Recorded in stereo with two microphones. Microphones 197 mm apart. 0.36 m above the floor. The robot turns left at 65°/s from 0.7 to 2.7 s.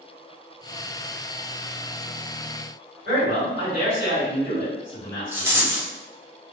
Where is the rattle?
10° right (ahead or behind), 0.7 m.